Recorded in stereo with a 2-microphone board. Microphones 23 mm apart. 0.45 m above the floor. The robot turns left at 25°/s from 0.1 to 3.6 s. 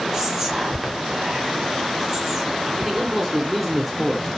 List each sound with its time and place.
0.1 s whispering: 25° right (ahead or behind), 0.9 m; by 2.6 s 15° right (ahead or behind), 0.9 m
2.8 s a man speaking: 5° right (ahead or behind), 0.7 m; by 4.3 s 5° left (ahead or behind), 0.7 m